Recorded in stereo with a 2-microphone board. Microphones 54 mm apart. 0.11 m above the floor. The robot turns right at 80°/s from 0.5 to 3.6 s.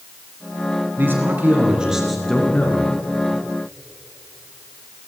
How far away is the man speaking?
About 1.9 m.